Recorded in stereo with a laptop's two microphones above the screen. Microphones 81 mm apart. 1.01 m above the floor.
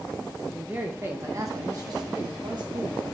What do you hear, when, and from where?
0.5 s a man speaking: 10° right (ahead or behind), 0.8 m; by 3.0 s 55° right (ahead or behind), 1.9 m